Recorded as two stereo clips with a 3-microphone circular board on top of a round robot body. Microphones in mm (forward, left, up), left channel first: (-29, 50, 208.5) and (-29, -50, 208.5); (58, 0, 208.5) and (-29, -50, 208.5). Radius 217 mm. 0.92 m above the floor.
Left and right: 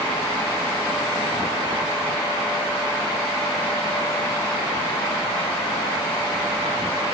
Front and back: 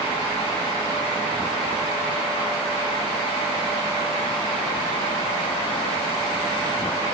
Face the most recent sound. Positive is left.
No sound to turn to.